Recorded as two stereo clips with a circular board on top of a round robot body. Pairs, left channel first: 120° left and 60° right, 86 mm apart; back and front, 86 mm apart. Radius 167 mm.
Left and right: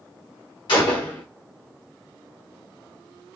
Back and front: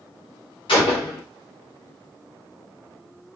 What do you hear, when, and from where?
0.7 s a gunshot: 155° left, 1.0 m